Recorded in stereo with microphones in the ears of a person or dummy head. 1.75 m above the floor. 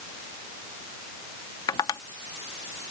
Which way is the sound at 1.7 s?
20° left (ahead or behind).